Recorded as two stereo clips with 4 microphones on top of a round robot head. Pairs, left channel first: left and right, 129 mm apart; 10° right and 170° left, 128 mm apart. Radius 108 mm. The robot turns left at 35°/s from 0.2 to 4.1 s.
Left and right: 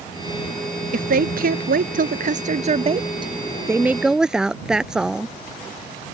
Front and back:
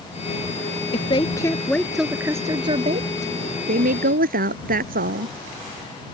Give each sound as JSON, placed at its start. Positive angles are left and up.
{"t": 0.9, "sound": "a woman speaking", "azimuth_deg": -65}